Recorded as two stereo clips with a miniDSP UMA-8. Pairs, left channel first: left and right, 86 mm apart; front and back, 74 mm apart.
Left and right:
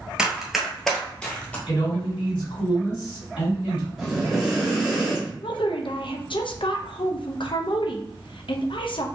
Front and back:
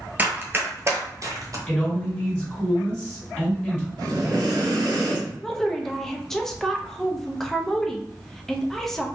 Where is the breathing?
170° right, 1.7 m.